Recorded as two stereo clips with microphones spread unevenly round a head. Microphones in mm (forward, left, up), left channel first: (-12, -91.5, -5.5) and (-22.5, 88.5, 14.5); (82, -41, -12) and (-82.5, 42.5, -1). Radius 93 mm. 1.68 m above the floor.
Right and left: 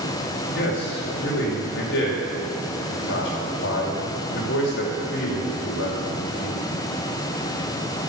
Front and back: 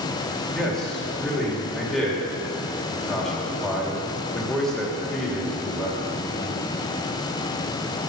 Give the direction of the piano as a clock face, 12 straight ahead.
No piano in this recording.